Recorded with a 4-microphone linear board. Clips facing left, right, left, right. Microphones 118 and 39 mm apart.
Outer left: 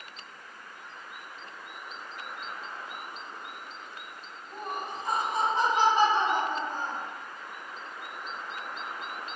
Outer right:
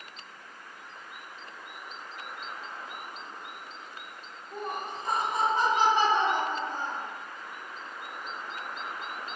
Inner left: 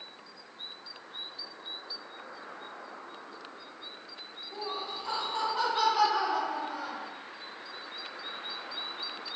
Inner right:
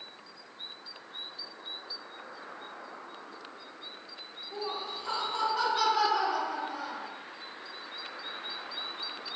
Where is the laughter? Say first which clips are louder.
Outer right 1 dB, inner right 1 dB; 5° left (ahead or behind), 1.6 m; by 7.1 s 50° left (ahead or behind), 2 m.